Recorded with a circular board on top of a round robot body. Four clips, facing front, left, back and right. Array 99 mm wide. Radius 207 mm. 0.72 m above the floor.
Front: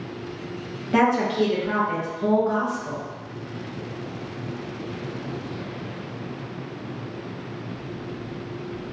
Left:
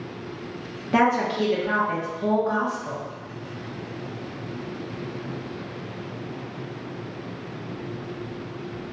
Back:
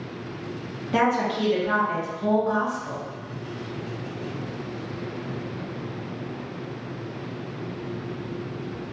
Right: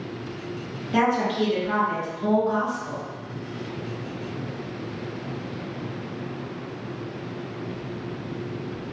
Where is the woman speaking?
70° left, 1.0 m.